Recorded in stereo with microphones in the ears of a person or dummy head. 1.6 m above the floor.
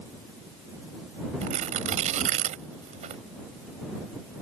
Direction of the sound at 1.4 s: 40° right (ahead or behind).